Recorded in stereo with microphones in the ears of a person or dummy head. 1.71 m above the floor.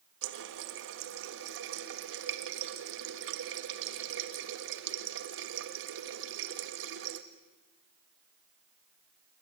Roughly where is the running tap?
Right.